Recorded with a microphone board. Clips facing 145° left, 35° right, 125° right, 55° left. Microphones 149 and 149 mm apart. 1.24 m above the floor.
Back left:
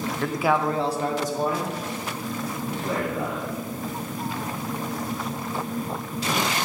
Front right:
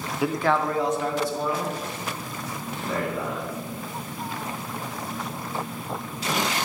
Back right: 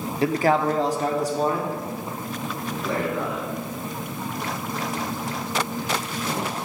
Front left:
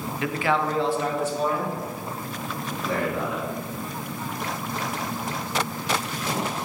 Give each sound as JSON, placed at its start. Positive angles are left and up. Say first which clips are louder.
{"t": 0.2, "sound": "a man speaking", "louder": "even, back right 5 dB", "azimuth_deg": -105, "distance_m": 0.6}